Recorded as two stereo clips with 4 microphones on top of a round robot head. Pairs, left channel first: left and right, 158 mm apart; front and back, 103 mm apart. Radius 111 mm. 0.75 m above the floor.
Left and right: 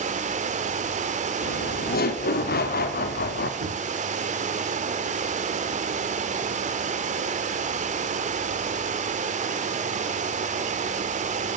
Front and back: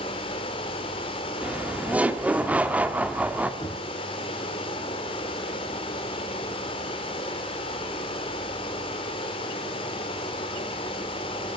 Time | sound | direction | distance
0.0 | running water | 45° right | 1.5 m
1.4 | laughter | 105° left | 2 m
3.6 | knocking | 70° right | 7 m